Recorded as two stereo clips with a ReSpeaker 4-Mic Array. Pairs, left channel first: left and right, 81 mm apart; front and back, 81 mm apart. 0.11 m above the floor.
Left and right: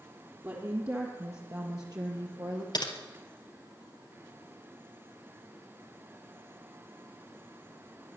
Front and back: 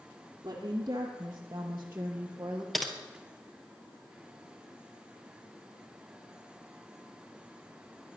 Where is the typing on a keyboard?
90° left, 1.6 m.